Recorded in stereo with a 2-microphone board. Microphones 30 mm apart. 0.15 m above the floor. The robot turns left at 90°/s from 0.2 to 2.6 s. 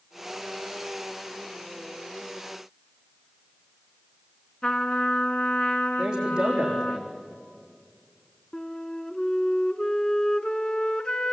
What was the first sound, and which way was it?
A trumpet, 35° left (ahead or behind).